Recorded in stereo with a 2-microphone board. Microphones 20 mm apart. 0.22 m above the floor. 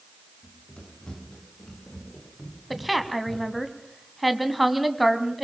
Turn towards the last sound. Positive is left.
turn(degrees=0)  # may be behind; listen again after turning